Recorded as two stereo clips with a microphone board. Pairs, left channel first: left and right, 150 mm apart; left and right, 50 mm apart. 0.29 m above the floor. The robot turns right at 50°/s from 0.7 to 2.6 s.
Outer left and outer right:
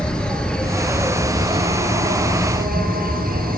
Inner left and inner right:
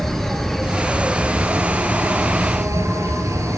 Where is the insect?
175° left, 2 m; by 3.6 s 90° right, 2 m.